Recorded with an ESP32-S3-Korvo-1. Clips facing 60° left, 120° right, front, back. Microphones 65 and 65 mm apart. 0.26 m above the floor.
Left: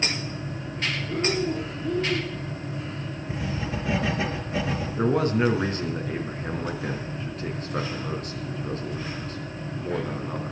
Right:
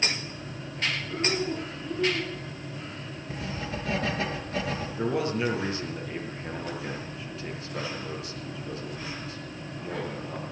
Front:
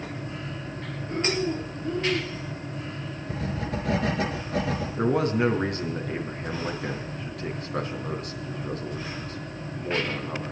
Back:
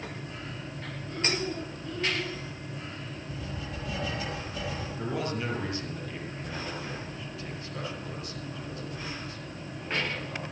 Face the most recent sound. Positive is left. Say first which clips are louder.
# left 6 dB, front 10 dB
turn(degrees=25)